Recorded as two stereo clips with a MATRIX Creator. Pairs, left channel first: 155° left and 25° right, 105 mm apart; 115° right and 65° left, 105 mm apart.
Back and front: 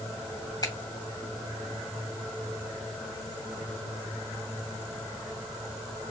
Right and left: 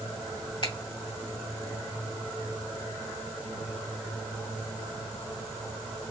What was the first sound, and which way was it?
A finger snap, 150° right.